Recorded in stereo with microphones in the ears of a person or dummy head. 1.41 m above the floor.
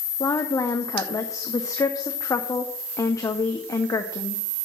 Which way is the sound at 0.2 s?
20° left (ahead or behind).